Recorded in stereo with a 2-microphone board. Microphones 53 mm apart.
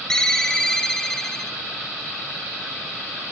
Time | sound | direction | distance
0.1 | a ringtone | 15° left (ahead or behind) | 0.9 m